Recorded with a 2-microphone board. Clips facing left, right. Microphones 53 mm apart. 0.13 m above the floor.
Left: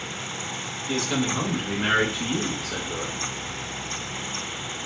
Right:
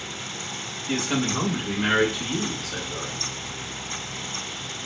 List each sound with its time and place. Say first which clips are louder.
0.9 s a man speaking: even; 30° right (ahead or behind), 1.2 m; by 3.3 s 45° left (ahead or behind), 1.7 m